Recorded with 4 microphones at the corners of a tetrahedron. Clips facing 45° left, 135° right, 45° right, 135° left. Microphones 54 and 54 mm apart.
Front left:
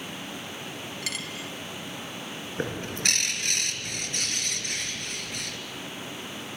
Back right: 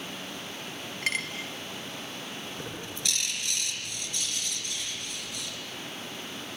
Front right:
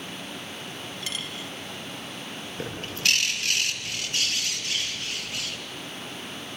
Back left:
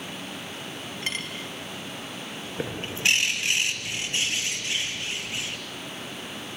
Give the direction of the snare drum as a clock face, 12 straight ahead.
No snare drum in this recording.